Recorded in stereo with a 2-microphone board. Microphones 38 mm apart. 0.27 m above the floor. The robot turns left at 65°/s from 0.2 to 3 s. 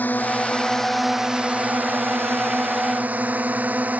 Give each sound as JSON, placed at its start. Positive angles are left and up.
{"t": 0.0, "sound": "a drone", "side_deg": 50}